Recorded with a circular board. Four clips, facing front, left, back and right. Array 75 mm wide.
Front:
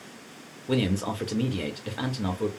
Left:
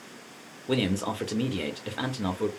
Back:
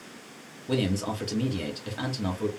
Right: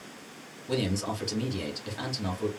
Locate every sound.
0.7 s a man speaking: 70° left, 0.7 m